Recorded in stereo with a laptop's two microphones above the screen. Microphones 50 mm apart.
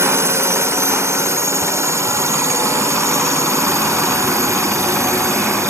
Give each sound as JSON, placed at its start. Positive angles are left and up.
{"t": 0.0, "sound": "a drone", "side_deg": -60}